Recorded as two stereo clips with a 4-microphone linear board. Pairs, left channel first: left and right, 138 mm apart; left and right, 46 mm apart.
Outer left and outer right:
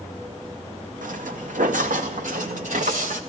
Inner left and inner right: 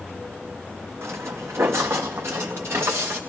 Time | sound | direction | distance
1.0 | footsteps | 70° right (ahead or behind) | 1.3 m